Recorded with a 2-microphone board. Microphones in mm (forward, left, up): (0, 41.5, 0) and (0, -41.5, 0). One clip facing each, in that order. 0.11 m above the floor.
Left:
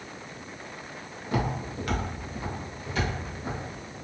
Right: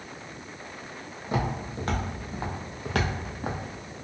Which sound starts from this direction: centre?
Footsteps, at 1.2 s.